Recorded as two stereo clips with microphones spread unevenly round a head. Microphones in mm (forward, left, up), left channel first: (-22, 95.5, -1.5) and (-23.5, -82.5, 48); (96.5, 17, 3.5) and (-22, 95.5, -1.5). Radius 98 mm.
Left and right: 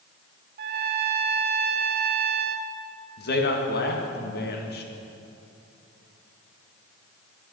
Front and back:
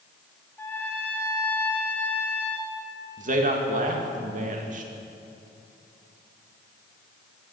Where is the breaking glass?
I don't hear breaking glass.